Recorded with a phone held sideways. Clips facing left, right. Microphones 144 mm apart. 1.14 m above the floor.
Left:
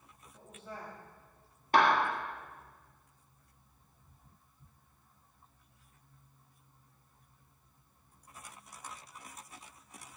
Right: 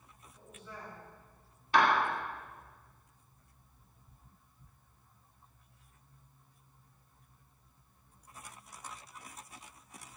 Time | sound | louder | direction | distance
0.3 | a woman speaking | left 3 dB | 60° left (ahead or behind) | 3 m
1.7 | a clap | left 1 dB | 50° left (ahead or behind) | 2 m